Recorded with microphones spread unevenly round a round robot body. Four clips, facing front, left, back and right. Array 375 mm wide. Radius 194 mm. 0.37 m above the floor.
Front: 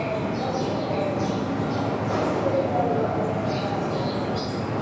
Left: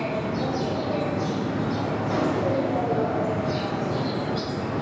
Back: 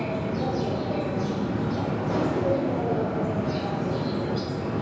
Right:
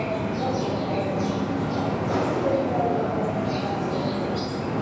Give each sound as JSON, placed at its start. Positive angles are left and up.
{"t": 0.0, "sound": "an insect", "azimuth_deg": -140, "distance_m": 1.4}